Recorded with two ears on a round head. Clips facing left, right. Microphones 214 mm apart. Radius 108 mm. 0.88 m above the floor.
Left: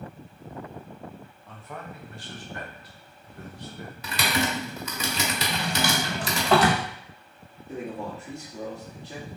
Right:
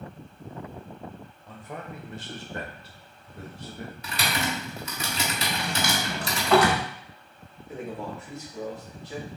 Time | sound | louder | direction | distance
1.5 | a man speaking | right 2 dB | 10° right (ahead or behind) | 1.1 m
4.0 | typing on a keyboard | left 3 dB | 55° left (ahead or behind) | 1.2 m
5.5 | a drawer | left 3 dB | 25° left (ahead or behind) | 1.0 m
7.7 | a man speaking | left 1 dB | 30° left (ahead or behind) | 1.6 m